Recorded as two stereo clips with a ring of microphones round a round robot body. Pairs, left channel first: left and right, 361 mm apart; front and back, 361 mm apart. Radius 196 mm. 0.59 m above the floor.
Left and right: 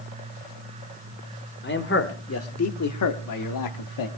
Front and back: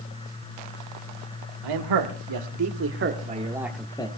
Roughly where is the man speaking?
Behind left.